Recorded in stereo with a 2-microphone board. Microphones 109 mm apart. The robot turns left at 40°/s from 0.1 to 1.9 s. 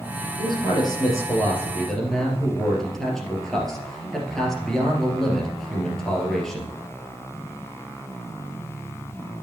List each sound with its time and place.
0.4 s a man speaking: 65° left, 2.5 m; by 6.7 s 5° left, 2.5 m